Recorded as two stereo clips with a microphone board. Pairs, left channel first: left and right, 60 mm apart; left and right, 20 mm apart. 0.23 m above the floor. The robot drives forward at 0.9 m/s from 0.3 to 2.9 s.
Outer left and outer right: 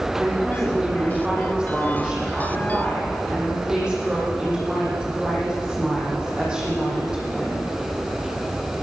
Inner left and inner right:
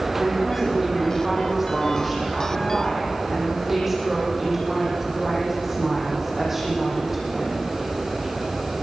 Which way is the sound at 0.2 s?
15° right (ahead or behind).